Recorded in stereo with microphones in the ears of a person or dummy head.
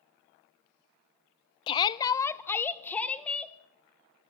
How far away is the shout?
About 0.7 m.